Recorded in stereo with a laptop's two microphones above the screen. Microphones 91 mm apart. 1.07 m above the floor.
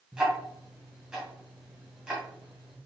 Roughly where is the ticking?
Centre.